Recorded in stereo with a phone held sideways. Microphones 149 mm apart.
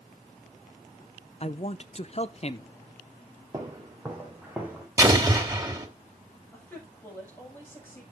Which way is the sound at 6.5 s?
15° left (ahead or behind).